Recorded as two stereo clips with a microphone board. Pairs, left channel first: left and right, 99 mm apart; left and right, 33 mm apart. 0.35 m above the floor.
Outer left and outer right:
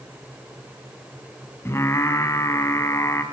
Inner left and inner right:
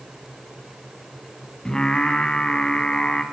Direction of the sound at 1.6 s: 25° left (ahead or behind).